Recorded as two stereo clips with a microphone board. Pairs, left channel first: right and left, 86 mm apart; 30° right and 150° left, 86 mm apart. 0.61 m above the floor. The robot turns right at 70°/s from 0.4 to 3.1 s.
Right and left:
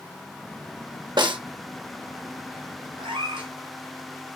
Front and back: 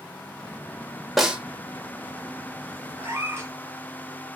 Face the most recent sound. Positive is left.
turn(degrees=85)